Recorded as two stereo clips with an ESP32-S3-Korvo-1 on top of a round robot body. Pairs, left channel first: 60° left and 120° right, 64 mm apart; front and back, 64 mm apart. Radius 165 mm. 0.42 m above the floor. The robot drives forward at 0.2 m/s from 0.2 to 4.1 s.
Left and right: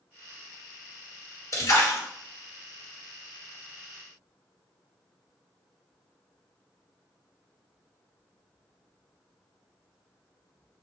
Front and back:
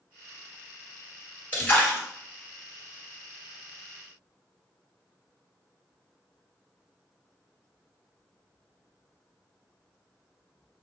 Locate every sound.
1.5 s a splash: 60° left, 1.9 m; by 2.0 s 65° left, 1.9 m